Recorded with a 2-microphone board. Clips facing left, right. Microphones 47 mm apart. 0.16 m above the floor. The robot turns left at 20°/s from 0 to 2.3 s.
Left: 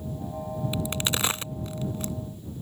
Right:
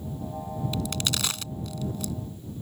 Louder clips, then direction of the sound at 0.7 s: Left 1 dB; 20° left (ahead or behind).